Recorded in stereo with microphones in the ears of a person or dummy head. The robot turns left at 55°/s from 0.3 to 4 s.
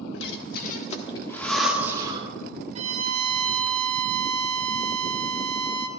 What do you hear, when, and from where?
0.1 s breathing: 70° left (ahead or behind), 1.4 m; by 2.3 s 40° right (ahead or behind), 1.4 m
2.8 s a violin: 40° right, 1.0 m; by 5.9 s 110° right, 1.0 m